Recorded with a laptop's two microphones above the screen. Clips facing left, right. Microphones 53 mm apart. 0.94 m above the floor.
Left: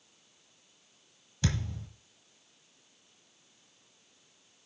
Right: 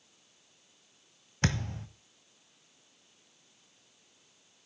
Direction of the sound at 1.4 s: 55° right (ahead or behind).